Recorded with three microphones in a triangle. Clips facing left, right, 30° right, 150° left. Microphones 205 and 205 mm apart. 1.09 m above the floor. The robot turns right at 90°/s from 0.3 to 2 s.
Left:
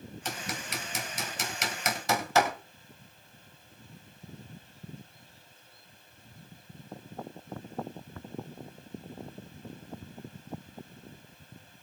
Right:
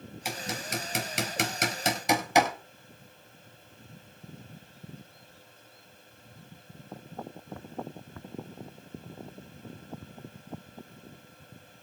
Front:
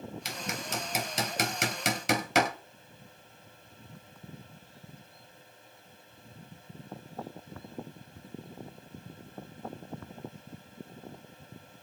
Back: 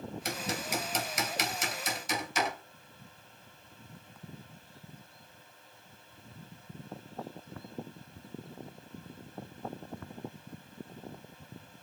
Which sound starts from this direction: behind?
Hammering, at 0.2 s.